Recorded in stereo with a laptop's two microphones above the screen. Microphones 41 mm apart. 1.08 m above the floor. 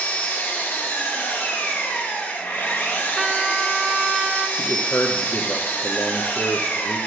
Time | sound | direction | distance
0.0 | an engine running | 55° left (ahead or behind) | 1.4 m
3.2 | a trumpet | 10° right (ahead or behind) | 0.6 m
4.6 | a man speaking | 75° left (ahead or behind) | 0.6 m